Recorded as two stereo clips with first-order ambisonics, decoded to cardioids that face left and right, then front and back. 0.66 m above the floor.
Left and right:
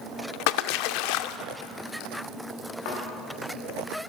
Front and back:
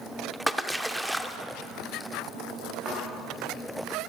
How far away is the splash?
About 0.5 m.